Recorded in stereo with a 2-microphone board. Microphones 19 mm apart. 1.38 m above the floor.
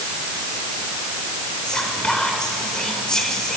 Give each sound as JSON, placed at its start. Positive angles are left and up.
{"t": 1.6, "sound": "whispering", "side_deg": 35, "distance_m": 5.0}